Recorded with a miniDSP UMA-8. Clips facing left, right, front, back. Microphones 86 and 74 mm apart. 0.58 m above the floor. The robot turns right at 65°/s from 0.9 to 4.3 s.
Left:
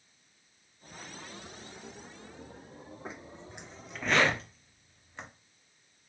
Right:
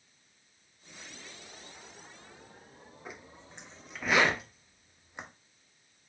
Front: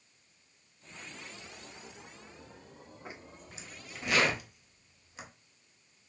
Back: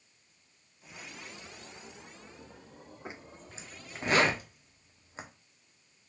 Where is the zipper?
125° left, 0.6 m; by 5.3 s 155° right, 0.6 m.